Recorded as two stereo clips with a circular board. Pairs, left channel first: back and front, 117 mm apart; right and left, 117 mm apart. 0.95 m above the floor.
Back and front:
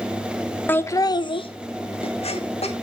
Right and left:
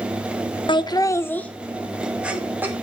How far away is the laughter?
About 0.8 m.